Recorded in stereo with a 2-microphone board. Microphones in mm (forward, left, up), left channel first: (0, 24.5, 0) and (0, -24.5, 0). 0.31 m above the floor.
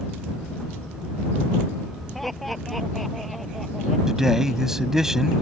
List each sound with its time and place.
2.1 s laughter: centre (ahead or behind)
4.1 s a man speaking: 10° right (ahead or behind)